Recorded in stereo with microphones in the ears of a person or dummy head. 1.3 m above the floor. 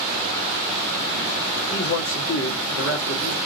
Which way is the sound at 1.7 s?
65° left (ahead or behind).